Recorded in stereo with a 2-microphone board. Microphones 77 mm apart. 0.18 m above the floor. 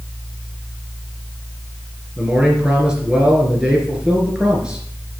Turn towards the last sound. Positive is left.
turn(degrees=-10)  # may be behind; listen again after turning